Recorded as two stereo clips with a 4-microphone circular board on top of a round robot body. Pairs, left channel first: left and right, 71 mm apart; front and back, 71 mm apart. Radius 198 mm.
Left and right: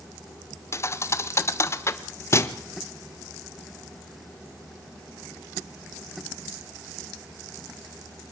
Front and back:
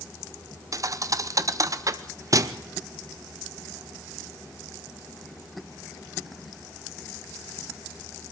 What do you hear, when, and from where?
0.7 s a thud: 140° left, 0.9 m